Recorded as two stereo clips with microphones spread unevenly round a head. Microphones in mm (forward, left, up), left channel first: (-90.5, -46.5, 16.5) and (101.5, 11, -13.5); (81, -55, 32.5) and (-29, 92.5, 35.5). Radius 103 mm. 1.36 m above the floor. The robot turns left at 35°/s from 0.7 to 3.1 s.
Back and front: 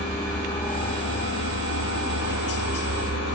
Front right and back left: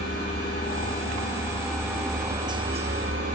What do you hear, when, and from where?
0.0 s a helicopter: 105° right; by 3.4 s 170° left